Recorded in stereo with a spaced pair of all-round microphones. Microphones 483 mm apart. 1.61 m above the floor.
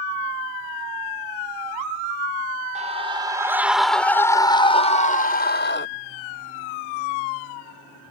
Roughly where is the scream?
Centre.